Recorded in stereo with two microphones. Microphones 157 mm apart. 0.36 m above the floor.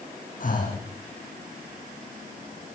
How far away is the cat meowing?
No cat meowing in this recording.